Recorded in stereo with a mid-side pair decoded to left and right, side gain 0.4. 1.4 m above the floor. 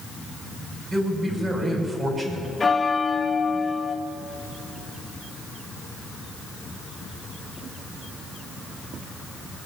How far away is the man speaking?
About 5.5 m.